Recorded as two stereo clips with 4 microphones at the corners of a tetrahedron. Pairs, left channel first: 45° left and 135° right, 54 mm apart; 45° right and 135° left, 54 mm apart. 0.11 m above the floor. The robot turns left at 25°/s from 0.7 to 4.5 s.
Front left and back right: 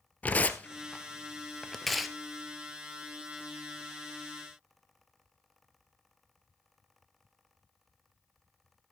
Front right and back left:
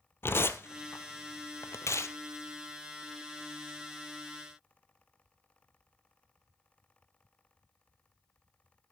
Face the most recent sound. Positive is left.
turn(degrees=-110)